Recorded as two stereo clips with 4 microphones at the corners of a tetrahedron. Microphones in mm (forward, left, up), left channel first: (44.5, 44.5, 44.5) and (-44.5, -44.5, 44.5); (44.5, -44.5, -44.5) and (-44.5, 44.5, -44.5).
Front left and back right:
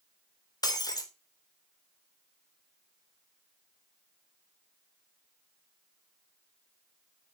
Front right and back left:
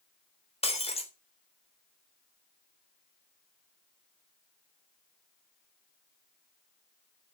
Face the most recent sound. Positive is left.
turn(degrees=-15)